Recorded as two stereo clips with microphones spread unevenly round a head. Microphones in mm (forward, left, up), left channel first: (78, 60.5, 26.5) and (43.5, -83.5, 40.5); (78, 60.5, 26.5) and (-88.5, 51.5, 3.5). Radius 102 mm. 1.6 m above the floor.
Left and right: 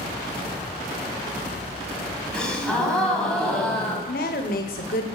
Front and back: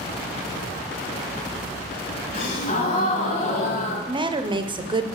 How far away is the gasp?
About 2 m.